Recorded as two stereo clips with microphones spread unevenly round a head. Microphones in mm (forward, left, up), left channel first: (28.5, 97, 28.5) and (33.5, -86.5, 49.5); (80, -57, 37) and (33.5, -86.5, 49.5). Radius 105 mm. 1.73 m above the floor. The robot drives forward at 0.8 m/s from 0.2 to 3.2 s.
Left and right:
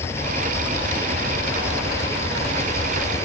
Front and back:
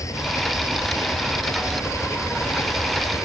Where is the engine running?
15° left.